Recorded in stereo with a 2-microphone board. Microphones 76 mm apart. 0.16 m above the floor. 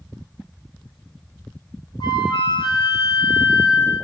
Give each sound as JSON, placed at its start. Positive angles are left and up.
{"t": 2.0, "sound": "a flute", "side_deg": 75, "distance_m": 3.5}